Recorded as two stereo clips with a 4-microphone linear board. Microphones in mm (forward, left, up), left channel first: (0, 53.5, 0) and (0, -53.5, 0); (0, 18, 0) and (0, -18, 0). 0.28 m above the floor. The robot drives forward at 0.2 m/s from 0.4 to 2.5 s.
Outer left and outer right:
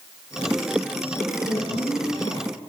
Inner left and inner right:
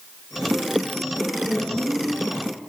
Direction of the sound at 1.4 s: 65° left (ahead or behind).